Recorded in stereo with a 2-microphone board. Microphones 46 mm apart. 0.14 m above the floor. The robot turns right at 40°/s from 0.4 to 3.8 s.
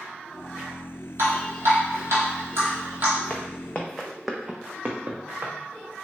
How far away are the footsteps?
About 0.7 m.